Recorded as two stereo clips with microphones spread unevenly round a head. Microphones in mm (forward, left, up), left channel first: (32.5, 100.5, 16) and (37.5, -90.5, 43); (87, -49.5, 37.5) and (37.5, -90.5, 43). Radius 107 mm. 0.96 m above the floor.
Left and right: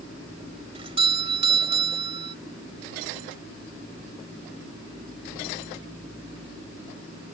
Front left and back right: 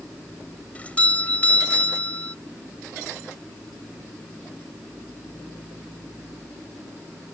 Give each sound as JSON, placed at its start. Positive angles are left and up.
{"t": 0.8, "sound": "a doorbell", "azimuth_deg": -30}